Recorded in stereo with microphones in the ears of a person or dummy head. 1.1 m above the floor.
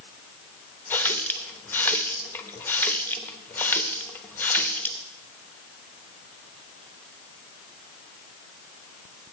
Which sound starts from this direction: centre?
A running tap, at 0.9 s.